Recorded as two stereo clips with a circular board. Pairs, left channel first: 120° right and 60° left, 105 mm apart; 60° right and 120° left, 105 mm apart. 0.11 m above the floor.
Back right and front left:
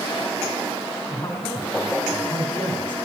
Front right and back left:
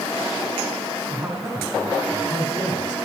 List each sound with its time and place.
1.1 s a man speaking: 170° left, 4.5 m